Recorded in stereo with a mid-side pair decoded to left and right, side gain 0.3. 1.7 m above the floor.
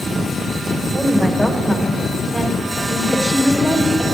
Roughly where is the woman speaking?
Ahead.